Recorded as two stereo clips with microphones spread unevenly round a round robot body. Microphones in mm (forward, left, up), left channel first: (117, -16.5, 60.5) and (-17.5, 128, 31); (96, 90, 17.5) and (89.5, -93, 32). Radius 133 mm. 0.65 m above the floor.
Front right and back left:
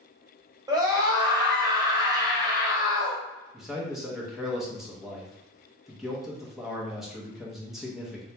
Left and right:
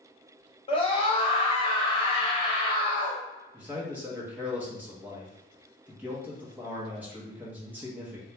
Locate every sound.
0.7 s a scream: 100° left, 1.4 m
3.5 s a man speaking: 170° right, 0.8 m